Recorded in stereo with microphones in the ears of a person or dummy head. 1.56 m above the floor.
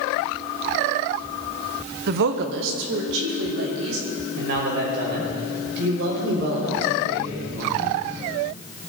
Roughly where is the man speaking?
Right.